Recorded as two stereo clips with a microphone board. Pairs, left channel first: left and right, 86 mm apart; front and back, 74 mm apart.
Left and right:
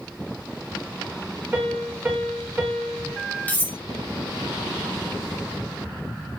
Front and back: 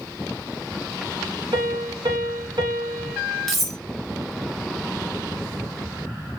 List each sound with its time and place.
1.5 s a piano: 165° right, 1.5 m
3.5 s cutlery clinking: 85° left, 0.5 m